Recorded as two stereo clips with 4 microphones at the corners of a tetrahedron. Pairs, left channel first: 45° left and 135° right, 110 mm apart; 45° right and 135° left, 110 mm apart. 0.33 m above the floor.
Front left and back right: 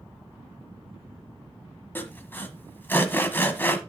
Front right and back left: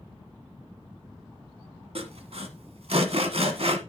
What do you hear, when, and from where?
1.9 s sawing: 115° left, 1.3 m